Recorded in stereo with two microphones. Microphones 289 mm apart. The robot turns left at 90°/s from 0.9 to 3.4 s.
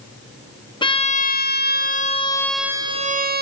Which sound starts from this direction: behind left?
A violin, at 0.8 s.